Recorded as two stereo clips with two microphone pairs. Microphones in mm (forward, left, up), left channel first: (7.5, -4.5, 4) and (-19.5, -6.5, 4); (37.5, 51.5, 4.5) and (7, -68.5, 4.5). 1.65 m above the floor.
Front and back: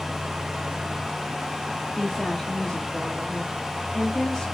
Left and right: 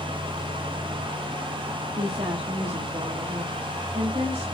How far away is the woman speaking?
About 2.5 m.